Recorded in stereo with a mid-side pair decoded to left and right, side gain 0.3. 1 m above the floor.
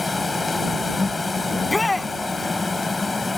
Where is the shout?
20° left.